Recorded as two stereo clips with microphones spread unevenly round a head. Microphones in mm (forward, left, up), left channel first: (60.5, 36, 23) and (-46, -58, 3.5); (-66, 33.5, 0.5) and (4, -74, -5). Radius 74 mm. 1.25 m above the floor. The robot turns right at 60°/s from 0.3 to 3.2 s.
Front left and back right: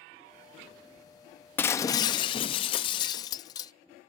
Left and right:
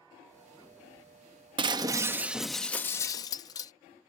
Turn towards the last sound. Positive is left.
turn(degrees=80)